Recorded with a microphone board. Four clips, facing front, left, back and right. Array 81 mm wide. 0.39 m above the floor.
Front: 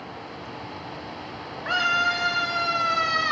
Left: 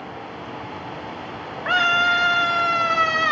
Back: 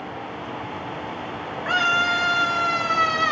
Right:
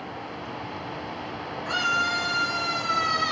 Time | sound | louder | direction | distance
1.6 | a scream | left 7 dB, back 2 dB | 95° left | 3 m